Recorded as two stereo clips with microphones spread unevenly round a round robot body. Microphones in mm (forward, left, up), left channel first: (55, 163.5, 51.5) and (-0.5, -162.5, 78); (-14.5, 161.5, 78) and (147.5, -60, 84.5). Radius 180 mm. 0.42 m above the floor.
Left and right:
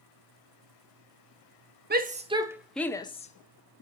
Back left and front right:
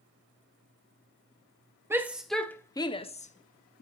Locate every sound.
1.9 s a shout: 125° right, 1.0 m; by 3.8 s 95° left, 1.2 m